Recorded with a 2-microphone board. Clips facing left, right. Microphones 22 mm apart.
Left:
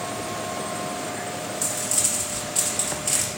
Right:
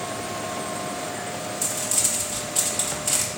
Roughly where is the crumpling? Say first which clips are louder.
Right 1 dB; centre.